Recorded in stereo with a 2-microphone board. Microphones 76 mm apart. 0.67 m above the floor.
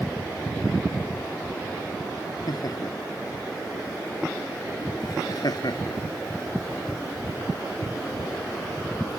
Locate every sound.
2.5 s laughter: 55° left (ahead or behind)